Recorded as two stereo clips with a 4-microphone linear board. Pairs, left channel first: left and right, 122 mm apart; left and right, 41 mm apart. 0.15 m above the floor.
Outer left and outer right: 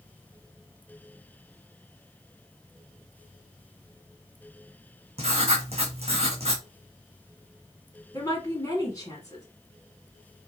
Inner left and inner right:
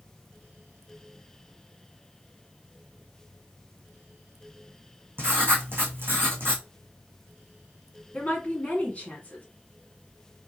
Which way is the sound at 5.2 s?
60° right (ahead or behind).